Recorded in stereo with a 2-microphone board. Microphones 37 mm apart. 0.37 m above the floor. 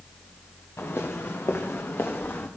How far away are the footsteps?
About 2.5 m.